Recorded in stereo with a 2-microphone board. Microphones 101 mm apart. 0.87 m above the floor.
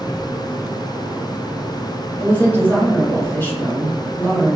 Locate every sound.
2.2 s a woman speaking: 20° left (ahead or behind), 1.8 m